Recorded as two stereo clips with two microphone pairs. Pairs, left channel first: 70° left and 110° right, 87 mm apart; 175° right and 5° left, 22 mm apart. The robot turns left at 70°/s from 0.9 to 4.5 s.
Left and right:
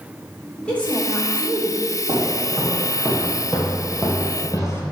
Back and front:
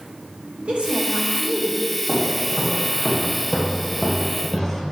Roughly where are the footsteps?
Right.